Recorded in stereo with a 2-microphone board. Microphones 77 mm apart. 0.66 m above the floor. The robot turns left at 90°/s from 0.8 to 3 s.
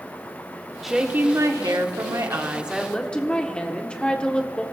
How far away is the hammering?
I don't hear hammering.